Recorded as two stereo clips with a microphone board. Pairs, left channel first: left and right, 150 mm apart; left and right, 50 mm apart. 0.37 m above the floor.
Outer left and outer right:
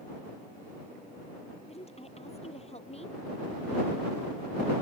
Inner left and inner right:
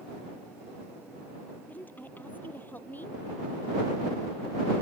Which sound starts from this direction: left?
A woman speaking, at 1.7 s.